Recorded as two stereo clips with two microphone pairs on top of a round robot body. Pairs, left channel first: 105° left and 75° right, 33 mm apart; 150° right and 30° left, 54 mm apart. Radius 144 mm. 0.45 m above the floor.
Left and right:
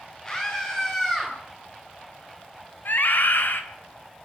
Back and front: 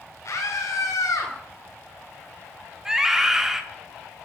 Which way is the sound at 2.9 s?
115° left.